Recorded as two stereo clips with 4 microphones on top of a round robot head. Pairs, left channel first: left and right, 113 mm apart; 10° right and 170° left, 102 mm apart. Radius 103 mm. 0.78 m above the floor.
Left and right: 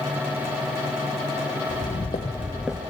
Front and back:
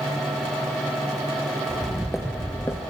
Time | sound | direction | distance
1.7 | footsteps | 90° left | 1.4 m